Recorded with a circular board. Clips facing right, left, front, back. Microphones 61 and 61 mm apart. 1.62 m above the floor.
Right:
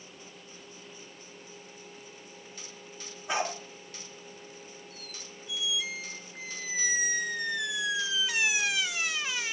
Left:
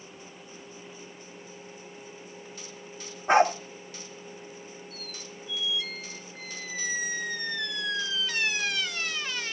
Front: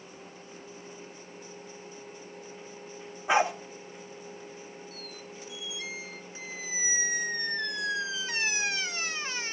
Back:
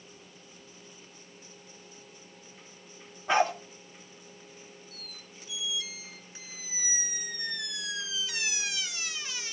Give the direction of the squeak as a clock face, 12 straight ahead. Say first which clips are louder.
Left 4 dB, front 7 dB; 12 o'clock.